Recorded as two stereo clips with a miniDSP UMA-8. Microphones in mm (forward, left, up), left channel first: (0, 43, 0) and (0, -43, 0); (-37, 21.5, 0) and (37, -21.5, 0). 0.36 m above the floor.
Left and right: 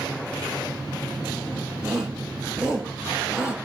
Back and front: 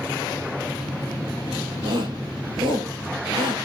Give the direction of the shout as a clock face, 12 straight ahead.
12 o'clock.